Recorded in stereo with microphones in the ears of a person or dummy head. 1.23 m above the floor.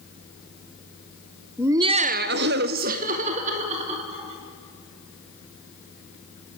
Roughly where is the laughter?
Centre.